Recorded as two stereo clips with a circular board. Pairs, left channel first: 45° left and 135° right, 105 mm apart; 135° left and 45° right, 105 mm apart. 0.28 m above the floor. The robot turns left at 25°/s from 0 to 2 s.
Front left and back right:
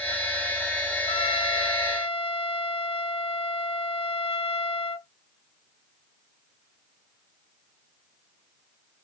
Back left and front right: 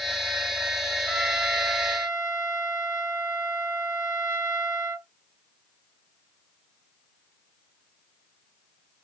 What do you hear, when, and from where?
1.1 s a trumpet: 40° left, 1.8 m; by 5.1 s 15° left, 1.8 m